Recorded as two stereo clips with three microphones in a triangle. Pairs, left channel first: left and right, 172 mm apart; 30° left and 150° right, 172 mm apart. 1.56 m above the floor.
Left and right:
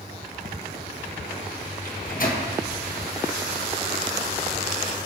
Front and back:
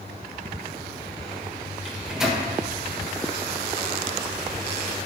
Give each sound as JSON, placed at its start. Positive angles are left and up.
{"t": 1.9, "sound": "a microwave", "azimuth_deg": 125, "distance_m": 1.2}